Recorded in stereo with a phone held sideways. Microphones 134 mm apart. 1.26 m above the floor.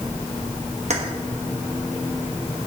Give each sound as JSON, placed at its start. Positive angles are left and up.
{"t": 0.9, "sound": "keys jangling", "side_deg": -55, "distance_m": 1.1}